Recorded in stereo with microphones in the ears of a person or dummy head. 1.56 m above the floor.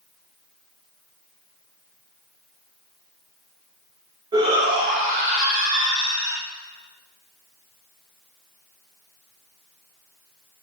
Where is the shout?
20° right (ahead or behind), 1.1 m; by 6.4 s 50° right (ahead or behind), 2.5 m.